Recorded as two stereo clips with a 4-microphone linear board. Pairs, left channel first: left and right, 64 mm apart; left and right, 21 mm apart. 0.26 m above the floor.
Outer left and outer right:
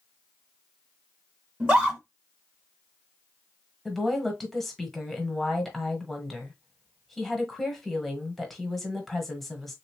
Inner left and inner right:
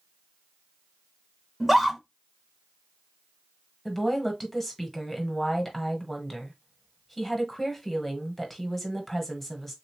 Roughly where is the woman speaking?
Centre.